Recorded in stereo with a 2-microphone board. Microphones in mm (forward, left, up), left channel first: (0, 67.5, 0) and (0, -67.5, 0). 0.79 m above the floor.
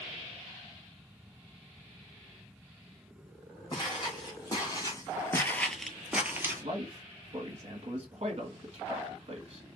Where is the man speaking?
45° right (ahead or behind), 1.2 m.